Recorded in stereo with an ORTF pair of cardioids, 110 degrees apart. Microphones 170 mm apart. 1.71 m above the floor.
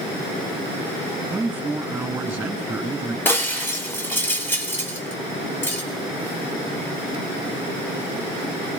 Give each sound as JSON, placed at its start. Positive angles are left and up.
{"t": 1.3, "sound": "a man speaking", "azimuth_deg": -10, "distance_m": 3.0}
{"t": 3.2, "sound": "breaking glass", "azimuth_deg": 15, "distance_m": 3.5}